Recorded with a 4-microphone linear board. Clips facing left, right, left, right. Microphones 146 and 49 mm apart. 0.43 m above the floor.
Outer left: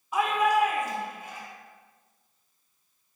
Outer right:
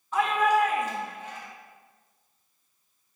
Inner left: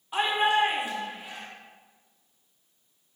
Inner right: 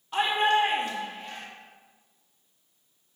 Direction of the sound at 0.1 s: 10° left (ahead or behind).